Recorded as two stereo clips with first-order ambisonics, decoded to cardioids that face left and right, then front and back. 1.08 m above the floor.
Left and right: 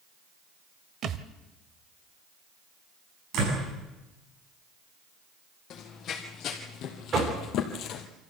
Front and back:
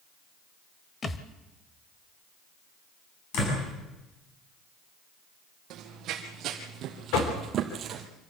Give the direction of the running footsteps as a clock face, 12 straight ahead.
7 o'clock.